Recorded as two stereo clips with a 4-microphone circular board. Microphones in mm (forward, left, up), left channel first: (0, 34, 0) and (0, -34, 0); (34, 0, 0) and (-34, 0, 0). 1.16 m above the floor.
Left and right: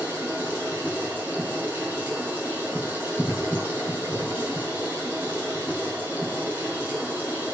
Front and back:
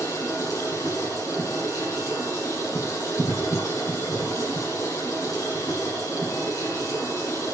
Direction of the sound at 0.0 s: 30° right.